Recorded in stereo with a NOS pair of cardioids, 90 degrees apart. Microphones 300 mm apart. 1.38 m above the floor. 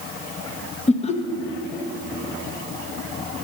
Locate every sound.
0.9 s laughter: 20° left, 1.2 m